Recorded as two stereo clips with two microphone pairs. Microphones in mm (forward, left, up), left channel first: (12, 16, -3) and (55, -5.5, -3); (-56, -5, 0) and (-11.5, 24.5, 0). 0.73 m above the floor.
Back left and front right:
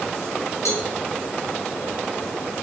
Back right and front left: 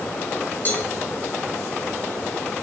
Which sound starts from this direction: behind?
A cowbell, at 0.7 s.